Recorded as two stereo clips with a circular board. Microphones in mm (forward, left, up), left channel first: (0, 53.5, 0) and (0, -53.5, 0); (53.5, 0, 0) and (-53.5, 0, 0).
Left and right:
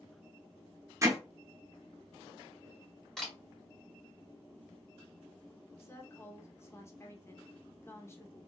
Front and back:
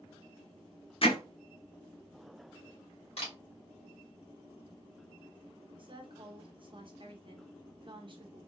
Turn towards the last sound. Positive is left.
turn(degrees=150)